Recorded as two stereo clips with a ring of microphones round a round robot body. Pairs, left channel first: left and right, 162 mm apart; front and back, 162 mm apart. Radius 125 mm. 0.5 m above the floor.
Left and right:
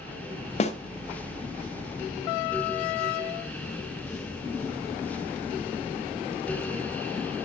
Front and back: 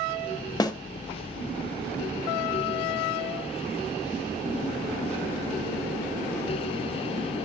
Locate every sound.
0.6 s a snare drum: 60° left, 1.1 m